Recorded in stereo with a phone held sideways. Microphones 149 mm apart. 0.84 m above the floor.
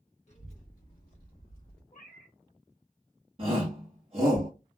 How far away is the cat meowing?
About 0.8 m.